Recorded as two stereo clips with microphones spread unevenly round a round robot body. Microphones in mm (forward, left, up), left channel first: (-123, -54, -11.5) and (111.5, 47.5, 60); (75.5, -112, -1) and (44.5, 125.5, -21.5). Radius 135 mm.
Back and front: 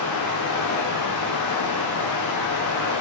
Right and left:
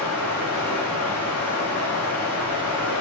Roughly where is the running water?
Behind.